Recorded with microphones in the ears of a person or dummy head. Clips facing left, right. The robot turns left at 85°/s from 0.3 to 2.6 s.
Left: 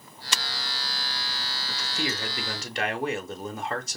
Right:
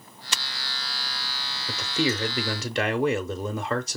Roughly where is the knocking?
I don't hear knocking.